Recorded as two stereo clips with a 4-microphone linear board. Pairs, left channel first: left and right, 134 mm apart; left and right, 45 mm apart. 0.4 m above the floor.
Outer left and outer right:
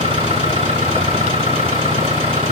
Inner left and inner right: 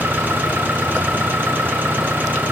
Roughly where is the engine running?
Right.